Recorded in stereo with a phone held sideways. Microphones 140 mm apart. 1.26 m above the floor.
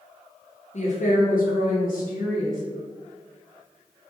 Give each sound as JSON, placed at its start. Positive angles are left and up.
{"t": 0.7, "sound": "a woman speaking", "side_deg": 50, "distance_m": 0.6}